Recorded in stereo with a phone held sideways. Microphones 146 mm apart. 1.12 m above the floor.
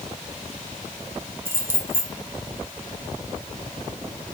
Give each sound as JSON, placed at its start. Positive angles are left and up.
{"t": 1.4, "sound": "keys jangling", "side_deg": -15, "distance_m": 1.0}